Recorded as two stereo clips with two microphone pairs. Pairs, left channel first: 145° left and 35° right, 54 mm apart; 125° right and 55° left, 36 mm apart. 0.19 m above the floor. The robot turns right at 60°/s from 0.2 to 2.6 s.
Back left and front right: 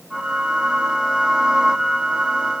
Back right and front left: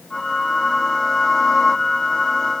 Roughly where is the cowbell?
No cowbell in this recording.